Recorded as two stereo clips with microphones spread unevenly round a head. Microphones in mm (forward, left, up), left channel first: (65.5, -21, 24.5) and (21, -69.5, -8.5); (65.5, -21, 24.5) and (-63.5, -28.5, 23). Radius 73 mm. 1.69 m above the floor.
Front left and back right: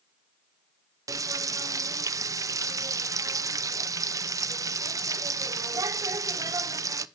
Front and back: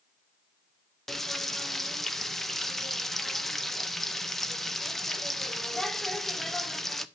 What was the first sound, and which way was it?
Frying, 85° right.